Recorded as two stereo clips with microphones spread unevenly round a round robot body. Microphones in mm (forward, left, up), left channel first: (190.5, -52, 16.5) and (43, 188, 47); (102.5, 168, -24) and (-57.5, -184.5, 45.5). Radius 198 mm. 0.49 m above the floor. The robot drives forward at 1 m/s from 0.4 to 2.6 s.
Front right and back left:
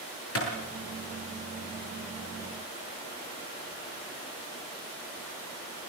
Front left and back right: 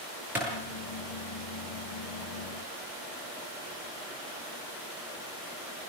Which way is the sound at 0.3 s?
30° right.